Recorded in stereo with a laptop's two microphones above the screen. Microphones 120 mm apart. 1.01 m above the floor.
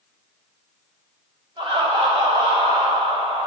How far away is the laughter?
About 3.5 m.